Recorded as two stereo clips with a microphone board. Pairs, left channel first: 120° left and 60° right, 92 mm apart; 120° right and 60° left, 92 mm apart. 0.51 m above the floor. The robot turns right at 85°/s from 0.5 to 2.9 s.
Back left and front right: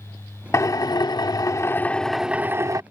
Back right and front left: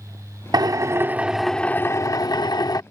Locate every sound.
0.5 s a drill: 75° left; by 2.8 s 95° right